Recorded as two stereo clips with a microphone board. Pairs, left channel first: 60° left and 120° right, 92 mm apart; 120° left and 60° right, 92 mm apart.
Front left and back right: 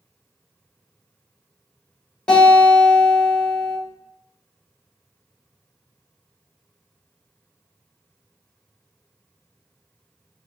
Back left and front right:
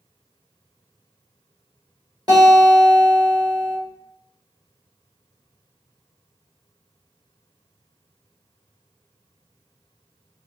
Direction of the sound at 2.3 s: 20° right.